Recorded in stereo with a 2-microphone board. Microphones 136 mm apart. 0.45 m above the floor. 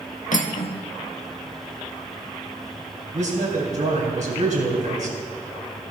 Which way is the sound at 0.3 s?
65° left (ahead or behind).